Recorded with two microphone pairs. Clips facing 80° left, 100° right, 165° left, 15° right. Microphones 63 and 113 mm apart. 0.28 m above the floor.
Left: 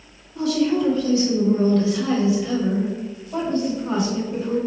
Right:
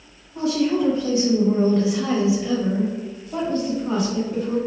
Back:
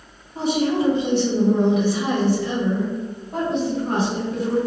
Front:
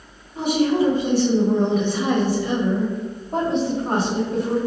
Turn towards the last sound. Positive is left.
turn(degrees=10)